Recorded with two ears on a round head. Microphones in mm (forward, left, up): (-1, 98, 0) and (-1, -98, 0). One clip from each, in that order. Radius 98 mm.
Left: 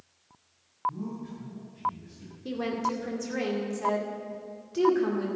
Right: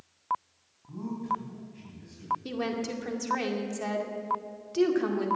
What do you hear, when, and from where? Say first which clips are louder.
0.9 s a man speaking: right 4 dB; 30° right (ahead or behind), 4.5 m; by 2.3 s 40° right (ahead or behind), 4.5 m
2.5 s a woman speaking: left 2 dB; 25° right (ahead or behind), 2 m